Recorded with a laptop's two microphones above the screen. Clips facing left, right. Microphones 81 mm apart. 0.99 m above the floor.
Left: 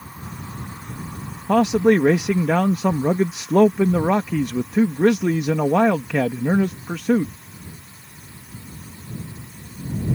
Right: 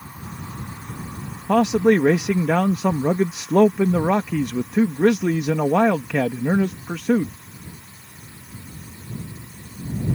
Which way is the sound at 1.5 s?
5° left (ahead or behind).